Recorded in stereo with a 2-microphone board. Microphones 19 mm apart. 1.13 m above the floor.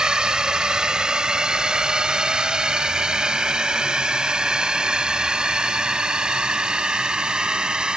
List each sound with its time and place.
0.0 s a drone: 45° right (ahead or behind); by 8.0 s 55° right (ahead or behind)